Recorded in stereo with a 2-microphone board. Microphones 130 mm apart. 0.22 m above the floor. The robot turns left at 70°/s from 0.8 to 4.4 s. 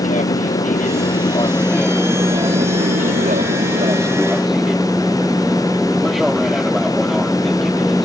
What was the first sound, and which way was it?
An aircraft, 75° left (ahead or behind).